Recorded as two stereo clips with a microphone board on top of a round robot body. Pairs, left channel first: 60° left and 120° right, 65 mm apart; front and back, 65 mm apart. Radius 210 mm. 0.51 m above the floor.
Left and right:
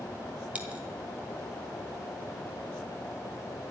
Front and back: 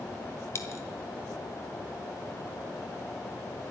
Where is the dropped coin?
50° right, 1.4 m.